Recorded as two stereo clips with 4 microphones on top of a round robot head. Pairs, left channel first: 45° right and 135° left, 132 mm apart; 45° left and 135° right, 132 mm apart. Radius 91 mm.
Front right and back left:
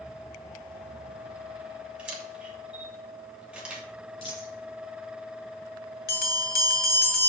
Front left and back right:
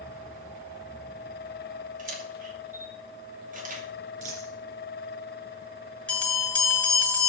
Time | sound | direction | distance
2.0 | a camera shutter | 145° right | 2.5 m
4.2 | a dropped coin | 100° right | 3 m
6.1 | a bell | 35° right | 2.5 m